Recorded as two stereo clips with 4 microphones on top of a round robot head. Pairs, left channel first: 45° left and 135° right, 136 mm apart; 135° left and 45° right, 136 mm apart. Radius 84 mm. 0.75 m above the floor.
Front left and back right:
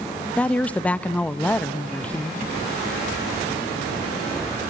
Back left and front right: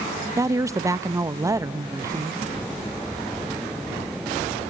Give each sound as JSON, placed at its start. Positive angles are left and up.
{"t": 0.4, "sound": "a woman speaking", "azimuth_deg": -20, "distance_m": 0.6}